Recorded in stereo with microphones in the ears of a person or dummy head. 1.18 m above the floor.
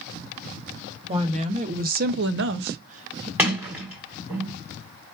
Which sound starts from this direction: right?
A woman speaking, at 1.1 s.